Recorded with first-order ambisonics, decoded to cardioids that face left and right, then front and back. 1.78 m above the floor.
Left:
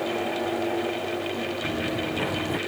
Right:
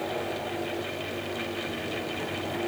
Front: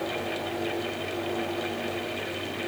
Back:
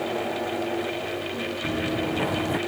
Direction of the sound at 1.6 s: 155° left.